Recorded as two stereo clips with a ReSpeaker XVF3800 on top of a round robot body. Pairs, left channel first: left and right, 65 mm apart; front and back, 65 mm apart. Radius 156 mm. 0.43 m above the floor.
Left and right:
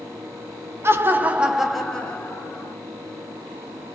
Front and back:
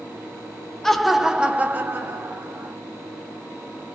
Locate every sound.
0.8 s laughter: 80° right, 1.0 m; by 2.8 s 140° left, 1.4 m